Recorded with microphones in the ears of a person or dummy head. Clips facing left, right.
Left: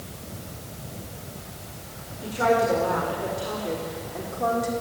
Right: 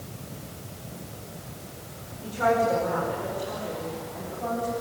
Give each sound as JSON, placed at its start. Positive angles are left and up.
{"t": 2.2, "sound": "a woman speaking", "side_deg": 40, "distance_m": 5.5}